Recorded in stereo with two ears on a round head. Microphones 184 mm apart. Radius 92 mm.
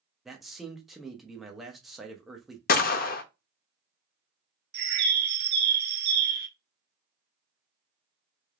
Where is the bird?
50° right (ahead or behind), 0.6 m.